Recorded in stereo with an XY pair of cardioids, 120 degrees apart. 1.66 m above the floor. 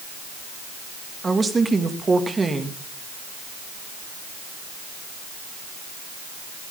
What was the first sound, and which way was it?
A woman speaking, 25° right.